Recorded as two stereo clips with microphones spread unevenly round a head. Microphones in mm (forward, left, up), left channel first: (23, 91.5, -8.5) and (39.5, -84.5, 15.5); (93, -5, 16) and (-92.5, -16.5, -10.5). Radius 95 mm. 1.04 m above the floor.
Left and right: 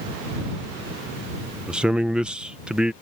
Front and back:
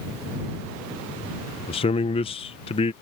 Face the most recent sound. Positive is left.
turn(degrees=15)